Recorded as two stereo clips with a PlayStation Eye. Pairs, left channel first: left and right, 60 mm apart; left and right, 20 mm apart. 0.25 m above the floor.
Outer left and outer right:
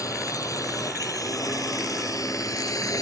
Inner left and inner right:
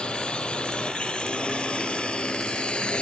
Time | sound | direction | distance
0.0 | a drone | 70° left (ahead or behind) | ?